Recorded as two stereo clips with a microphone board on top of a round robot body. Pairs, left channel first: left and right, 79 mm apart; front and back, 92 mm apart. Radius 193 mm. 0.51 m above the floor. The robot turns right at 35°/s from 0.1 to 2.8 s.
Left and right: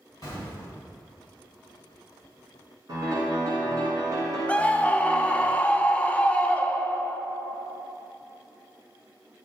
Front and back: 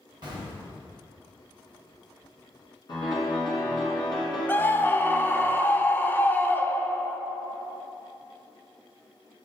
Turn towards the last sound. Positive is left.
turn(degrees=35)